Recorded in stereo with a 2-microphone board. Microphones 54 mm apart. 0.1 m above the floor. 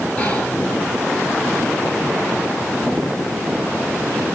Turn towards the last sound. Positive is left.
turn(degrees=20)  # may be behind; listen again after turning